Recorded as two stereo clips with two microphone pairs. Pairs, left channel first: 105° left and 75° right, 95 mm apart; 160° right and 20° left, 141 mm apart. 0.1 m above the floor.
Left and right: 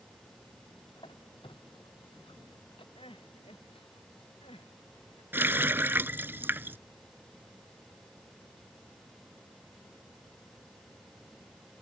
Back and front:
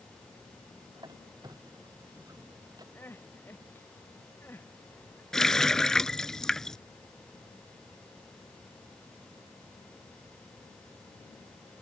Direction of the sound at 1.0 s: 80° left.